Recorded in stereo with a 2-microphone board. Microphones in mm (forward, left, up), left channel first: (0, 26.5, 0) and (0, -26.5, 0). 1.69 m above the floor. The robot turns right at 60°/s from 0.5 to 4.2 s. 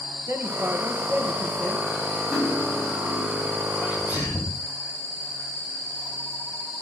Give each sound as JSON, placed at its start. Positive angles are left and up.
{"t": 0.3, "sound": "a man speaking", "azimuth_deg": -60, "distance_m": 2.0}
{"t": 2.3, "sound": "cutlery clinking", "azimuth_deg": -30, "distance_m": 5.5}
{"t": 3.8, "sound": "a sneeze", "side_deg": 75, "distance_m": 10.0}